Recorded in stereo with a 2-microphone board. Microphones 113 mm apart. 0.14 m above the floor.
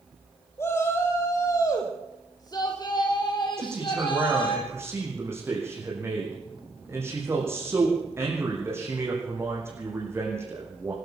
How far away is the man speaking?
About 7.5 m.